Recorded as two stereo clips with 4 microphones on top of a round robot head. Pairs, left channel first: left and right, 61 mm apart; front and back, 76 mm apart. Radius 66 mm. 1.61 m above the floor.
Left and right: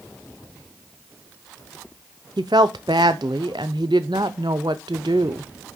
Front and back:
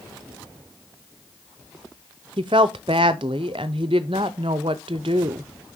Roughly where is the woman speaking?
Behind right.